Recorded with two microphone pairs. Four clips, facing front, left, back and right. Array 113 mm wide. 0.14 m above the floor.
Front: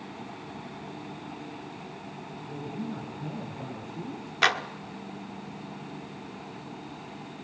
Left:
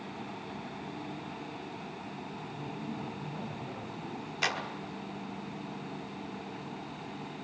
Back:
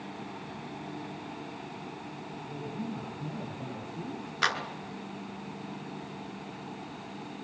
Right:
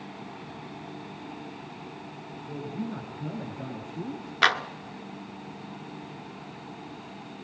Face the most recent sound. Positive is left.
turn(degrees=-65)